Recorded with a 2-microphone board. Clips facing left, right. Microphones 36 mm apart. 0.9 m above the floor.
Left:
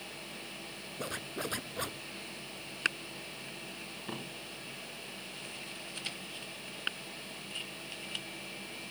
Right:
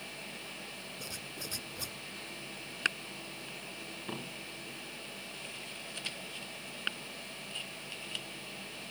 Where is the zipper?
40° left (ahead or behind).